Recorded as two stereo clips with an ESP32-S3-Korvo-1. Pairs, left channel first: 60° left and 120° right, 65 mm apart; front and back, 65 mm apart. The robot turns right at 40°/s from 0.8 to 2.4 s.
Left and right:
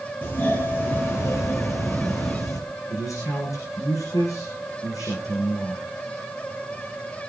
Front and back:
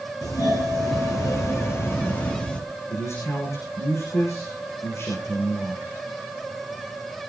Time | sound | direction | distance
0.2 | a doorbell | 5° left | 6 m
2.9 | a man speaking | 35° left | 9 m